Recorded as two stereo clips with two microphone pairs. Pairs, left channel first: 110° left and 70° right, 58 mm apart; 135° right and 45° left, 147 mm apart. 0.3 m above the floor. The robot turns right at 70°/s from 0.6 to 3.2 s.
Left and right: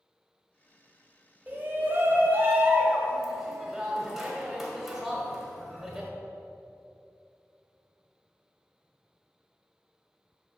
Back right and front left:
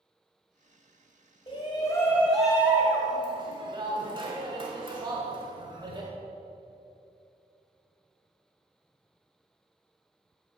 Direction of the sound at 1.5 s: 110° right.